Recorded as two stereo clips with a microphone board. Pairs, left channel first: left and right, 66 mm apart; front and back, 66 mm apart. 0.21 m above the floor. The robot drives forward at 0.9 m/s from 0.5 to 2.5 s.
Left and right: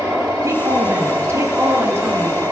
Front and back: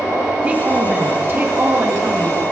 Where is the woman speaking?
115° right, 2 m; by 2.4 s 145° right, 3.5 m.